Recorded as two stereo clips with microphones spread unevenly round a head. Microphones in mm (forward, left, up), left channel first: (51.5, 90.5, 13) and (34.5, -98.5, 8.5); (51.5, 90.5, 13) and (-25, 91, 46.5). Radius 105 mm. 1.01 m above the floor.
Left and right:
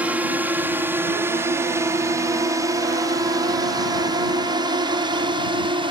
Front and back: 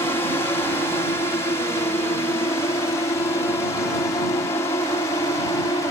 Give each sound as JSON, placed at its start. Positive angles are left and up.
{"t": 0.0, "sound": "a drone", "azimuth_deg": -15}